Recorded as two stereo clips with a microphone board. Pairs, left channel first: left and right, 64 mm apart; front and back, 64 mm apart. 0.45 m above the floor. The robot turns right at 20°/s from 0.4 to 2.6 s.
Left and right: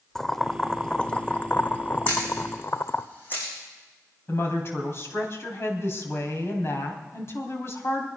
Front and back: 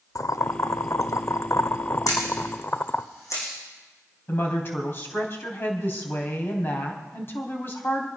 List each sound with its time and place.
0.1 s boiling: 5° left, 0.6 m; by 3.1 s 50° left, 0.6 m
2.1 s a camera shutter: 20° left, 6.5 m; by 3.5 s 30° left, 6.5 m
4.3 s a woman speaking: 50° left, 3.5 m